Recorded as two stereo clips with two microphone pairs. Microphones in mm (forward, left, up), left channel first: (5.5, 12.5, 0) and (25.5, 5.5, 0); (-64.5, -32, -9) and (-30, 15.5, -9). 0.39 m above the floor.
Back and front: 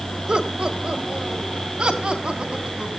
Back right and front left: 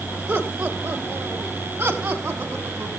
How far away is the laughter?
About 1.5 m.